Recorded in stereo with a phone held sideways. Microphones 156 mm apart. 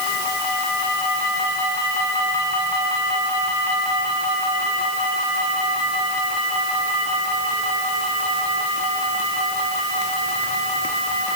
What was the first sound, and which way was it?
Only background noise.